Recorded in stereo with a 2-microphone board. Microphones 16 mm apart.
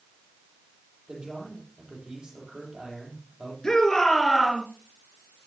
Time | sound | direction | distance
1.1 | a man speaking | 50° right (ahead or behind) | 8 m
3.6 | a shout | 55° left (ahead or behind) | 4 m